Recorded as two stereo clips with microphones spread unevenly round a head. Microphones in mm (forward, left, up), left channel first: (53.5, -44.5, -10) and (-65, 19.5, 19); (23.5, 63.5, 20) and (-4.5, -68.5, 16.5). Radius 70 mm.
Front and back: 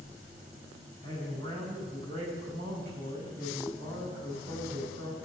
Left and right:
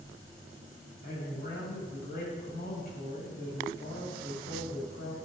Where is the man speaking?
110° left, 6.5 m.